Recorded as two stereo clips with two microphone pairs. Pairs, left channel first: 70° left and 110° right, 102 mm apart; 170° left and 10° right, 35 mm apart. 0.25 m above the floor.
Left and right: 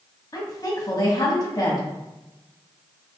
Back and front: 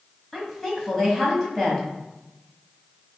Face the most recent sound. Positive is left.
turn(degrees=90)